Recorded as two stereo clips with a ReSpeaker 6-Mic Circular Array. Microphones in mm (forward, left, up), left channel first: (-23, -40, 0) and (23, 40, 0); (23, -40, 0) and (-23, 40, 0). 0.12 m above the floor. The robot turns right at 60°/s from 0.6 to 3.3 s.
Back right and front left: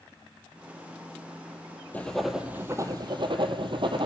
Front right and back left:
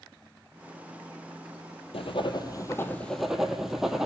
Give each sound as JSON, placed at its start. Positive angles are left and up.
{"t": 1.9, "sound": "writing", "azimuth_deg": -45, "distance_m": 0.8}